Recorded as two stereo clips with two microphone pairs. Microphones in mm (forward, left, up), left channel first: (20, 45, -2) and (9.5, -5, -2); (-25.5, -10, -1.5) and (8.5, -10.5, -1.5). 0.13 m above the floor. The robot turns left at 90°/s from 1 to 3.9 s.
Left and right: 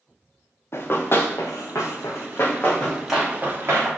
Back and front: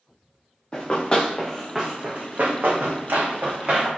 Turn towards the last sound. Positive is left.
turn(degrees=-80)